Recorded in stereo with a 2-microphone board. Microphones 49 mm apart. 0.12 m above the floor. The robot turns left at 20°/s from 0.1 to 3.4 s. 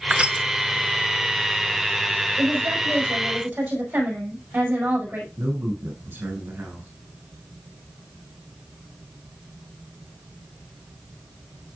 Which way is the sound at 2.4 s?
50° right (ahead or behind).